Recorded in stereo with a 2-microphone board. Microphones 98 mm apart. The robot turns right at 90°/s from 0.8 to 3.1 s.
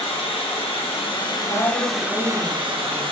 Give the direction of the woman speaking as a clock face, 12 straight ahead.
8 o'clock.